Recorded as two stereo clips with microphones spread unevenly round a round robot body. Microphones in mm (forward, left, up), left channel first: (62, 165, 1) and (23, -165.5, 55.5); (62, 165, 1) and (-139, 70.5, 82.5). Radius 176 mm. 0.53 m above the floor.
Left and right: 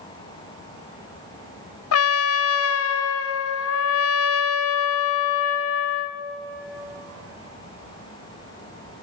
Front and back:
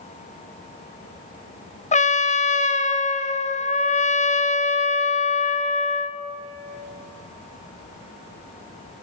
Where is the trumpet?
60° left, 1.3 m.